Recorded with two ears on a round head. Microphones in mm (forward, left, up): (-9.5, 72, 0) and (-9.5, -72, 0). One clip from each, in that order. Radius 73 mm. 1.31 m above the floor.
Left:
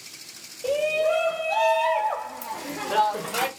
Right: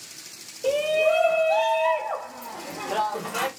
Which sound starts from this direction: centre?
A shout, at 0.6 s.